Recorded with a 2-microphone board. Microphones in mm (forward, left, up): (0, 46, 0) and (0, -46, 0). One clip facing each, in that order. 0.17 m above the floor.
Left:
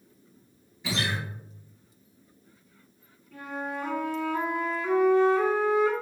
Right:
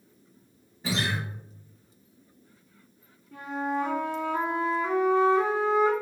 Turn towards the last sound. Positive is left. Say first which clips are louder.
# right 5 dB
turn(degrees=-25)  # may be behind; listen again after turning